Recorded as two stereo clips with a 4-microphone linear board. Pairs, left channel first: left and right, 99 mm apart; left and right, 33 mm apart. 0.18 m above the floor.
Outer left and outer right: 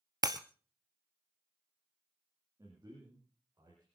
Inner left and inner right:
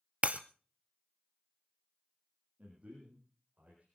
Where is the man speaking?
30° right (ahead or behind), 6.5 m.